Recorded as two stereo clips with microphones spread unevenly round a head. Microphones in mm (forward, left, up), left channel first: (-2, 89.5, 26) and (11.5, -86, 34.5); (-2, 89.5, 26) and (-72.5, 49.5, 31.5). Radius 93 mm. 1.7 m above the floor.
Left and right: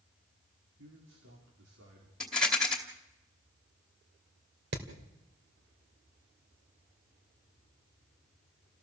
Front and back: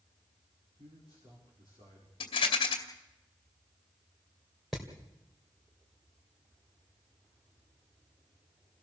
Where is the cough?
I don't hear a cough.